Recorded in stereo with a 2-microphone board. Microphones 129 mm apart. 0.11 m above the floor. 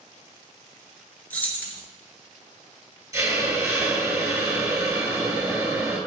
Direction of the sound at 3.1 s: 25° right (ahead or behind).